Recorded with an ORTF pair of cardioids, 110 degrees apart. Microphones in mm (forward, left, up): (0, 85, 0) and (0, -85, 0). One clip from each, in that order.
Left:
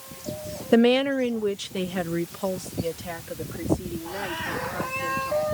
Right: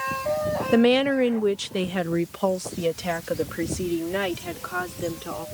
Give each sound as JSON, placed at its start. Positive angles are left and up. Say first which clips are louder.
{"t": 0.7, "sound": "a woman speaking", "louder": "even", "azimuth_deg": 10}